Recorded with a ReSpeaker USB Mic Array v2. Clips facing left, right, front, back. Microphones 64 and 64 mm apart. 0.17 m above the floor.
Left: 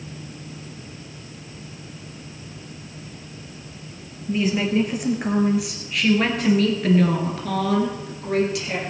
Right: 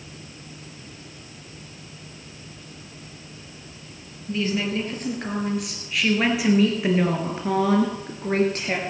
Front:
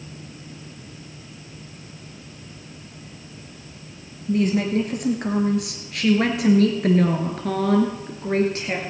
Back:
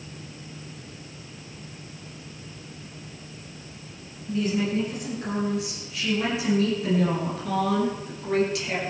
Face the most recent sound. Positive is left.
turn(degrees=-50)